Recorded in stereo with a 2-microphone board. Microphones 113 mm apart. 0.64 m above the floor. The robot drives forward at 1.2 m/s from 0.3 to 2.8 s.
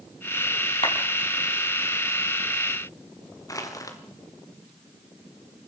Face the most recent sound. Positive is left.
turn(degrees=30)  # may be behind; listen again after turning